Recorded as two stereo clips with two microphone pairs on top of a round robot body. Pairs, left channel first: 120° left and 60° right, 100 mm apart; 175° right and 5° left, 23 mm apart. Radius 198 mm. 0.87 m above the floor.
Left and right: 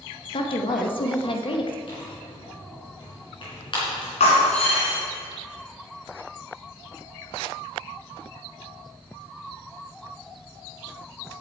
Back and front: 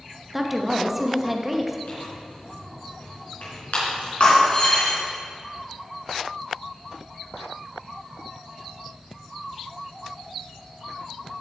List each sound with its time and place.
0.3 s a woman speaking: 85° left, 1.2 m
1.9 s tearing paper: 160° left, 4 m
4.2 s breaking glass: 135° left, 2 m